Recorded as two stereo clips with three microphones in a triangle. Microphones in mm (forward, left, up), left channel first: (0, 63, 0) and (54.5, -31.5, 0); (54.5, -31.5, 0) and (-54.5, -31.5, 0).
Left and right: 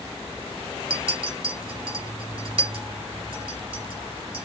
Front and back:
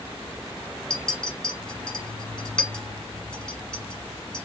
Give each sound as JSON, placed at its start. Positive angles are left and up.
{"t": 0.9, "sound": "a clink", "azimuth_deg": -80, "distance_m": 1.4}